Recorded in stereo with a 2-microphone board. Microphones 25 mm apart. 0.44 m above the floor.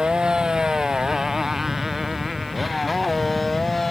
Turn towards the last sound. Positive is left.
turn(degrees=5)  # may be behind; listen again after turning